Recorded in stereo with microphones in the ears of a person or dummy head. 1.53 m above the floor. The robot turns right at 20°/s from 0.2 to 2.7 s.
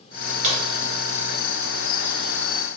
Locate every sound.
0.4 s a crack: 45° right (ahead or behind), 1.3 m; by 0.6 s 40° right (ahead or behind), 1.3 m